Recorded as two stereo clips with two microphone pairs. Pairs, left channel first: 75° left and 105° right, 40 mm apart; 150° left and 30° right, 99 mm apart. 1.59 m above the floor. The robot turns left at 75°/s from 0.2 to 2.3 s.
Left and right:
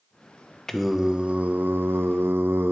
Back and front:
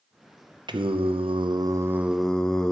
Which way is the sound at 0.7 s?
Straight ahead.